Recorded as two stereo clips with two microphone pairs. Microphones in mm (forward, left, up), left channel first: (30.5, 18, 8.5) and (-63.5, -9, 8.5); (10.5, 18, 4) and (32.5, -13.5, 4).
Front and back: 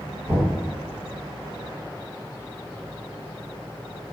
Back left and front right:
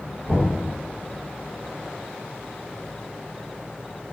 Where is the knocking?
150° left, 1.5 m.